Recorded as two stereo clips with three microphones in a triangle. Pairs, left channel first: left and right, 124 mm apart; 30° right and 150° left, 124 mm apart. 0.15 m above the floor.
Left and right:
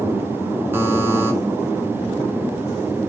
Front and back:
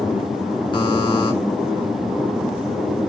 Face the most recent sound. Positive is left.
turn(degrees=-30)